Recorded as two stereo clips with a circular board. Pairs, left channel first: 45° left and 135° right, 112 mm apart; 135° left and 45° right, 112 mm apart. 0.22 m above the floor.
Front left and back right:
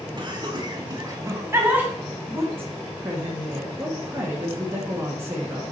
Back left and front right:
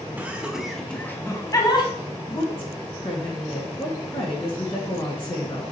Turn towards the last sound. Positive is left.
turn(degrees=160)